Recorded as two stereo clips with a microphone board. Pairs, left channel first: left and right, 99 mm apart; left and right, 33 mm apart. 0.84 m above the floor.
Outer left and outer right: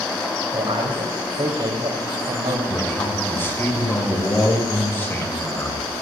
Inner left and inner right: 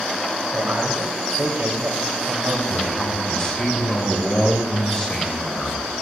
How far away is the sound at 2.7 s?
About 7.5 m.